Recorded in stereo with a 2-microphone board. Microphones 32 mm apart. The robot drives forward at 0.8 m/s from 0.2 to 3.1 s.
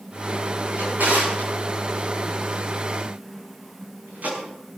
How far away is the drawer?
About 8.5 m.